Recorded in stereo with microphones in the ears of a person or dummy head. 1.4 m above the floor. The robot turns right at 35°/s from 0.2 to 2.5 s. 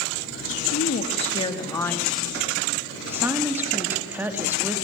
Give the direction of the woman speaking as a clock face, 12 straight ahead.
8 o'clock.